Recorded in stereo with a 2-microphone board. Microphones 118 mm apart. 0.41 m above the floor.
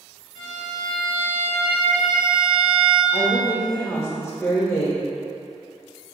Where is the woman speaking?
20° left (ahead or behind), 1.0 m.